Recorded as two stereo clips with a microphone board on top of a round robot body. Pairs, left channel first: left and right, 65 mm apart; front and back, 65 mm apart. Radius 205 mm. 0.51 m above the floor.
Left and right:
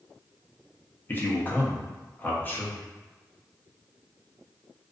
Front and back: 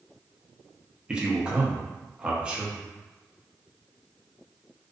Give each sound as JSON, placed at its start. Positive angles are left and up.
{"t": 1.1, "sound": "a man speaking", "azimuth_deg": 120, "distance_m": 0.9}